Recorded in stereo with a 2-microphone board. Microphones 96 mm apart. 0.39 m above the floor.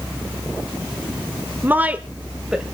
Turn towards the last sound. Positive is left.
turn(degrees=-5)  # may be behind; listen again after turning